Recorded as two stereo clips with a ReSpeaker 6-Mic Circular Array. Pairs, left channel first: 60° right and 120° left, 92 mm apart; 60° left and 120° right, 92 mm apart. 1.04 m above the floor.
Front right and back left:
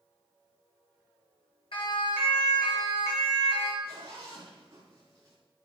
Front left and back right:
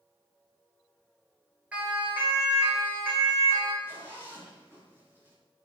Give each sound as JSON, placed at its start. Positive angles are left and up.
{"t": 1.7, "sound": "a siren", "azimuth_deg": -45, "distance_m": 6.5}
{"t": 3.8, "sound": "a zipper", "azimuth_deg": 175, "distance_m": 9.0}